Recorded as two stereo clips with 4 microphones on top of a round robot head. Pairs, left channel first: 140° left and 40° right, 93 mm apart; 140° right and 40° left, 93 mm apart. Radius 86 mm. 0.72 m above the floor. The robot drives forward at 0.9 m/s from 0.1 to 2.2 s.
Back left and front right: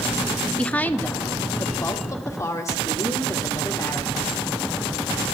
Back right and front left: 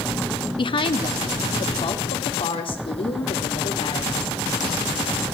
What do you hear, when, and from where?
0.6 s a woman speaking: 145° right, 1.5 m; by 4.3 s 165° right, 2.5 m